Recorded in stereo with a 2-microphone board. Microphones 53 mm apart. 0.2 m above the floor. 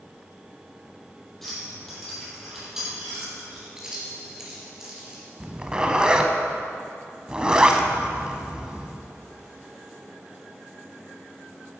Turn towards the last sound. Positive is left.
turn(degrees=-15)  # may be behind; listen again after turning